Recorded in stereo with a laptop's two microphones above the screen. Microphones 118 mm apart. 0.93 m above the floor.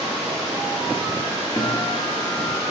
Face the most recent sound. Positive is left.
turn(degrees=30)  # may be behind; listen again after turning